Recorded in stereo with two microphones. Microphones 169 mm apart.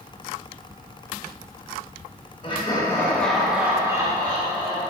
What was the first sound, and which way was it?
Laughter, 35° left (ahead or behind).